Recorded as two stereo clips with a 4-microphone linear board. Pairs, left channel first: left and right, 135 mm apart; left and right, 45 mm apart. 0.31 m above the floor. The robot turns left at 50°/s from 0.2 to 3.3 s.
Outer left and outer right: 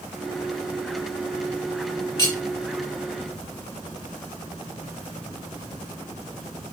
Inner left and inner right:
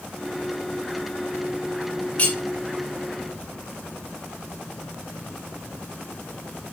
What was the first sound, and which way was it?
Cutlery clinking, 25° left (ahead or behind).